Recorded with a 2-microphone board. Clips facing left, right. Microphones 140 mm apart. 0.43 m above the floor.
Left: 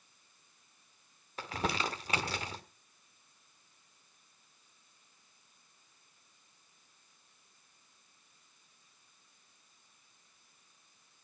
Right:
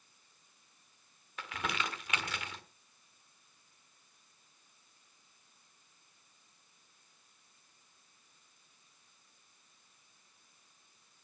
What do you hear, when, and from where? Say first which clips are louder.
1.4 s crumpling: left 4 dB; 35° left (ahead or behind), 1.4 m